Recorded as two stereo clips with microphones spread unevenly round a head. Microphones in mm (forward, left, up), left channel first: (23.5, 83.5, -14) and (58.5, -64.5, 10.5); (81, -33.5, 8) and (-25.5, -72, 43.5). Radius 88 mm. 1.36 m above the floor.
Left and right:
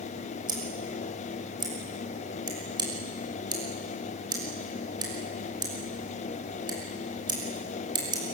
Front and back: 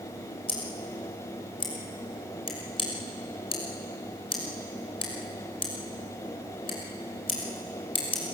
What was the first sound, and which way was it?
Scissors, 20° right.